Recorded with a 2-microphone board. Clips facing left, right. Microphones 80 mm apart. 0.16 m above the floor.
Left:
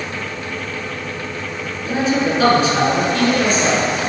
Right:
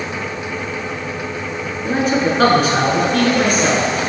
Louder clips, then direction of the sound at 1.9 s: Right 1 dB; 50° right (ahead or behind).